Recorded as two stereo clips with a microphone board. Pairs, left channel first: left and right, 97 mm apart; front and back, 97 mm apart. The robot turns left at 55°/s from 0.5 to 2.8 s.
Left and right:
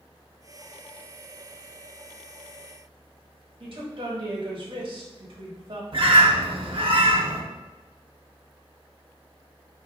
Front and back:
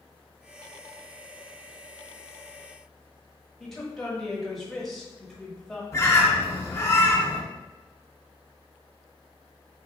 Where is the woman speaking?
85° right, 1.2 m.